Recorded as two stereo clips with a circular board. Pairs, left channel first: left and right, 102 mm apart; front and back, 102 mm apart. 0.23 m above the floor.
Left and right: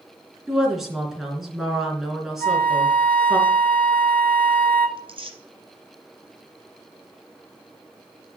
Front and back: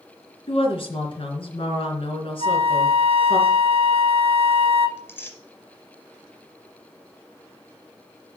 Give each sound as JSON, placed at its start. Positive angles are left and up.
{"t": 0.5, "sound": "a woman speaking", "azimuth_deg": -5, "distance_m": 3.0}
{"t": 2.4, "sound": "a flute", "azimuth_deg": 15, "distance_m": 0.8}
{"t": 5.0, "sound": "tearing paper", "azimuth_deg": -70, "distance_m": 2.0}